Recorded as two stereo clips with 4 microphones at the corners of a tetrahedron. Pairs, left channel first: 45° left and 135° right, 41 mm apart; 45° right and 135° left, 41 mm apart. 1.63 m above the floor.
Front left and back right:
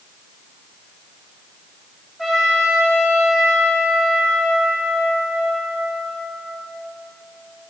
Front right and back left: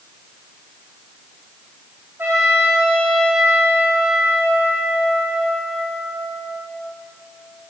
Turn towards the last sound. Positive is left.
turn(degrees=130)